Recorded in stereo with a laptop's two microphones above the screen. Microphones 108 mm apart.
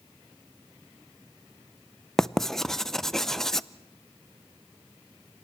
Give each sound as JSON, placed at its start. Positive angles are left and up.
{"t": 2.2, "sound": "writing", "side_deg": 5, "distance_m": 0.5}